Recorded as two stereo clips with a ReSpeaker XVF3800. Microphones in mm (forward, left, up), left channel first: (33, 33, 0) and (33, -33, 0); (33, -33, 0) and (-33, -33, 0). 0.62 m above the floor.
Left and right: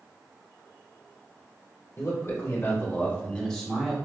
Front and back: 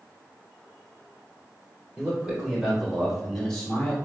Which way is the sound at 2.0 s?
110° left.